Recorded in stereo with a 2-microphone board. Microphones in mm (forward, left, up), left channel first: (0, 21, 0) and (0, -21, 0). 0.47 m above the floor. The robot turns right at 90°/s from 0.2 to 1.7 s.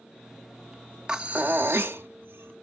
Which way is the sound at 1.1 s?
155° right.